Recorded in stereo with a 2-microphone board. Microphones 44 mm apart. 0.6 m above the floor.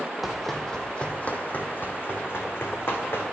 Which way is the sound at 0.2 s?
5° right (ahead or behind).